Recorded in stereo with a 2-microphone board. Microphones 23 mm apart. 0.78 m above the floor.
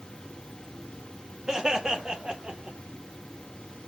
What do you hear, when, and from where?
1.5 s laughter: 35° right (ahead or behind), 1.7 m; by 2.8 s 55° right (ahead or behind), 1.5 m